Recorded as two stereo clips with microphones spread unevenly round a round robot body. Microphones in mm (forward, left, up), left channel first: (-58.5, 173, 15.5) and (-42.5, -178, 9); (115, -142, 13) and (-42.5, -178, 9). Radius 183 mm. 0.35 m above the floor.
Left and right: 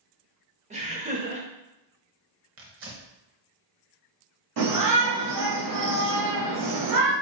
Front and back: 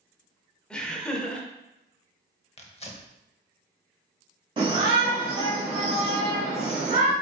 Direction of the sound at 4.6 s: 115° right.